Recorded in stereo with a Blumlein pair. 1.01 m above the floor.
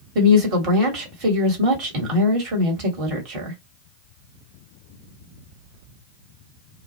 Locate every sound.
0.1 s a woman speaking: 35° right, 1.2 m